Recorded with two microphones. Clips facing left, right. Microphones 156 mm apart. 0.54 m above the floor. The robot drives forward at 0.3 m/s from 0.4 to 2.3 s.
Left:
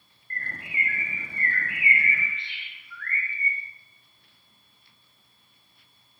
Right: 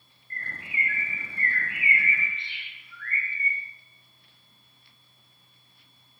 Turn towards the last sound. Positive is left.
turn(degrees=70)  # may be behind; listen again after turning